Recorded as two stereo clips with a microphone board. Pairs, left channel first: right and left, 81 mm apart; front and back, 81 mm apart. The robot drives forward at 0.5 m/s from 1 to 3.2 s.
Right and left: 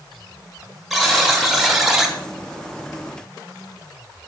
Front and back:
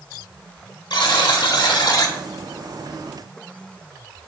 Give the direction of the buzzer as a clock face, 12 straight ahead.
12 o'clock.